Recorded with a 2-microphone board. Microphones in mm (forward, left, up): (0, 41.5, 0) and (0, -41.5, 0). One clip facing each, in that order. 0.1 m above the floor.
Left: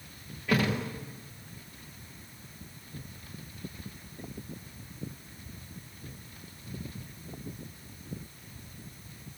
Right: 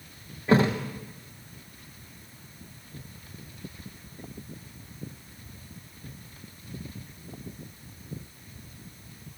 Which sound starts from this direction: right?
A thud, at 0.5 s.